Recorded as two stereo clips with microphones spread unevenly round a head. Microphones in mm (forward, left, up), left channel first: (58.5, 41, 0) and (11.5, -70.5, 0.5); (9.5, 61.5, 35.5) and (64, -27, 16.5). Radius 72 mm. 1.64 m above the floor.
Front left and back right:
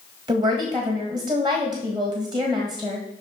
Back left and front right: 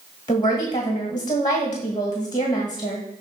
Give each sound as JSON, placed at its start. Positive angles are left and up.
{"t": 0.3, "sound": "a woman speaking", "azimuth_deg": -175, "distance_m": 1.8}